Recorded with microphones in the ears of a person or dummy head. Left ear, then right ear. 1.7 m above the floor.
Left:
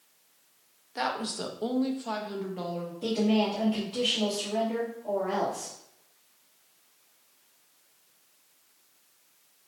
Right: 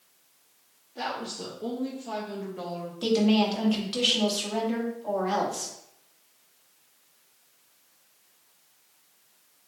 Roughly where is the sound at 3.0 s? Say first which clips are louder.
Right 3 dB; right.